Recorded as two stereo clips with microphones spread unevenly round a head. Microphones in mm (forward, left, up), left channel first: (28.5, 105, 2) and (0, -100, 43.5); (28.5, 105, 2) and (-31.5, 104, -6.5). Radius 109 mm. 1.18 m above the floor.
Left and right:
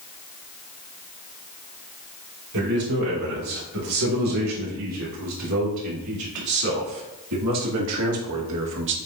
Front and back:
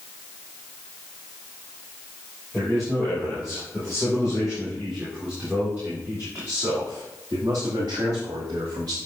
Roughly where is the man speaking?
Right.